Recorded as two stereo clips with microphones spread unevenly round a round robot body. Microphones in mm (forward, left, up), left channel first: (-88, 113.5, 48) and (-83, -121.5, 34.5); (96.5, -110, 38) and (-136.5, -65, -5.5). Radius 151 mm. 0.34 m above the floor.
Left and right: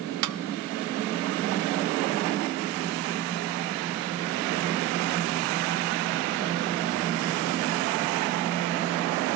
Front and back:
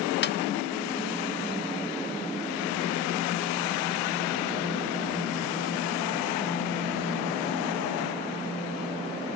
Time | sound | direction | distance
0.2 | a snare drum | 60° right | 0.7 m